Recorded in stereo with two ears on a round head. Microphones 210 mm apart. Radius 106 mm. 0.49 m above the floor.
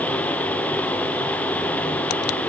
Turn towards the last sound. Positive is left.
No sound to turn to.